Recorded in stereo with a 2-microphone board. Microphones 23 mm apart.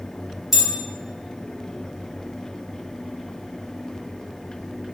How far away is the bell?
About 1.3 m.